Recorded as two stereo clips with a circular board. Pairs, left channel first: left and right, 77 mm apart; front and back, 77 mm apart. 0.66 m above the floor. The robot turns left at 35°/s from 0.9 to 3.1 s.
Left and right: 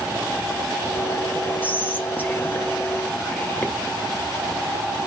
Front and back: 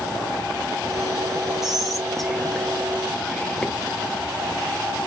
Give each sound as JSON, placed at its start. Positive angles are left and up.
{"t": 1.6, "sound": "whispering", "azimuth_deg": 100, "distance_m": 0.5}